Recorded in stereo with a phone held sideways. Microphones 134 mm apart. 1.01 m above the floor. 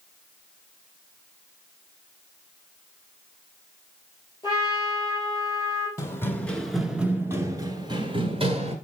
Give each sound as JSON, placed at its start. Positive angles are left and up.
{"t": 4.4, "sound": "a trumpet", "side_deg": 30, "distance_m": 4.5}
{"t": 6.0, "sound": "running footsteps", "side_deg": 20, "distance_m": 1.0}